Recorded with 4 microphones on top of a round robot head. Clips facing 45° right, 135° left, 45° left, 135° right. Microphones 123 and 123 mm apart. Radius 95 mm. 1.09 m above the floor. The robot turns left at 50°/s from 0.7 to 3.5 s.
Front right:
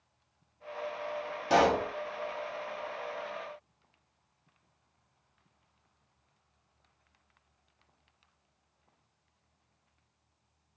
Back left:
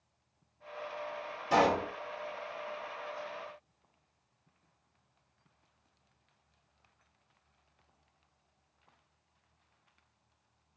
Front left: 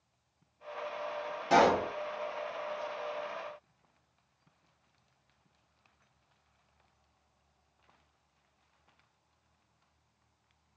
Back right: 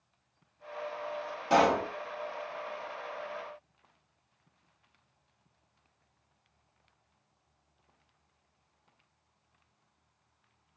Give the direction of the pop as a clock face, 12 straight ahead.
2 o'clock.